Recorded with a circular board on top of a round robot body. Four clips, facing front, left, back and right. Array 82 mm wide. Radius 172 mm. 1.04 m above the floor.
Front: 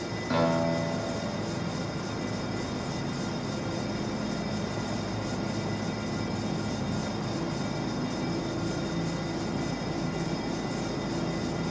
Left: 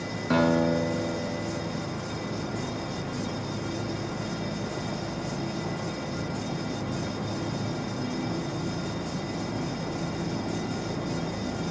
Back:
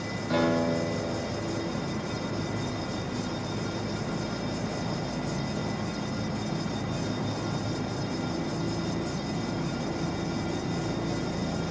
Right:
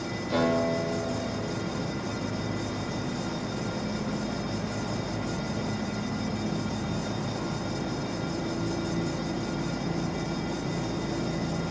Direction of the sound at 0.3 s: 75° left.